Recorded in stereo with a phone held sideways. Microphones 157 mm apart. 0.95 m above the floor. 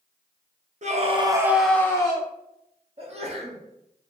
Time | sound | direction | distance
0.8 | a scream | 50° right (ahead or behind) | 0.6 m
3.0 | a sneeze | 40° right (ahead or behind) | 0.8 m